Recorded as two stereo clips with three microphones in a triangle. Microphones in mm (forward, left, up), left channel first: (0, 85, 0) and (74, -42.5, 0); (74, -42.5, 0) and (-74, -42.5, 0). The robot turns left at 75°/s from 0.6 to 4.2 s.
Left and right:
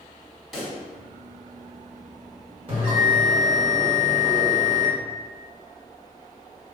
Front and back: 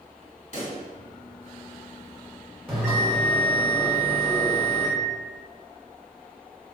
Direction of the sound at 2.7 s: 100° right.